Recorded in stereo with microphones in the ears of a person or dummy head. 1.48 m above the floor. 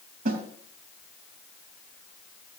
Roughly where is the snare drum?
Right.